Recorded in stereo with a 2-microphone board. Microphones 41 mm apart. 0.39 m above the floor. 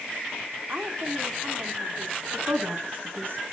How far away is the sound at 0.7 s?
About 2.5 m.